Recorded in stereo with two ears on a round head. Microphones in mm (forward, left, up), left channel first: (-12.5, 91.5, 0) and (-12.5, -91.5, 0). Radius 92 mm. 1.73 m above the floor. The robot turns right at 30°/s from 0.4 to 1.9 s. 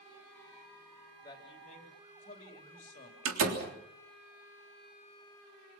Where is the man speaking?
20° left (ahead or behind), 3 m; by 3.1 s 40° left (ahead or behind), 3 m.